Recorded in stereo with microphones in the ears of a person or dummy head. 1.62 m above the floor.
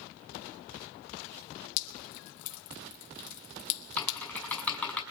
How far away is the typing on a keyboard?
About 5 m.